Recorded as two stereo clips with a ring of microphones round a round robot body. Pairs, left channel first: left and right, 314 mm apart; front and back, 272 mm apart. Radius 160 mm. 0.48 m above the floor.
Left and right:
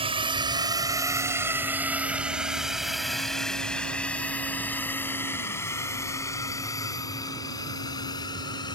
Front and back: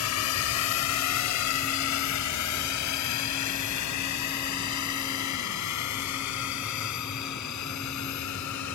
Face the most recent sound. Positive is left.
turn(degrees=15)